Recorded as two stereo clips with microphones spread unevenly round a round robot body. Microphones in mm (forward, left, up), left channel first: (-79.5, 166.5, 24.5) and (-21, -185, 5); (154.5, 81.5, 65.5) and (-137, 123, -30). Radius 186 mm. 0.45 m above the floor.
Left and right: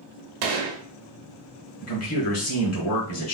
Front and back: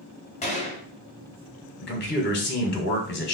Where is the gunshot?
85° right, 0.7 m.